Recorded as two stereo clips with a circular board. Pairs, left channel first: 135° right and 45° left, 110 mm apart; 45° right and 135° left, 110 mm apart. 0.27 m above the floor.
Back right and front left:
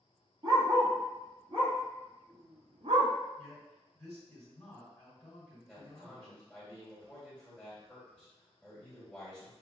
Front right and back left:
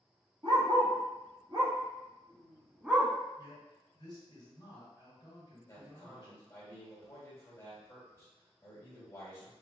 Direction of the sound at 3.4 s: 65° right.